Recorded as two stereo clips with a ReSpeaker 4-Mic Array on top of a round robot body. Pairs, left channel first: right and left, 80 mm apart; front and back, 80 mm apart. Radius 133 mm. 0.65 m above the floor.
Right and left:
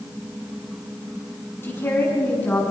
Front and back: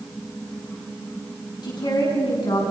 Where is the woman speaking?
30° right, 6 m; by 2.7 s 20° right, 7 m.